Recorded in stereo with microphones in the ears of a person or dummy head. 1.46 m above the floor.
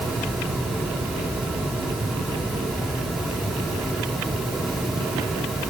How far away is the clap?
I don't hear a clap.